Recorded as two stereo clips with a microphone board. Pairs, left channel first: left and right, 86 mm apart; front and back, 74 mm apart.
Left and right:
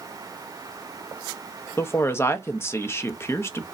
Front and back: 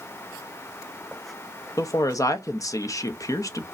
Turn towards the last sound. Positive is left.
turn(degrees=30)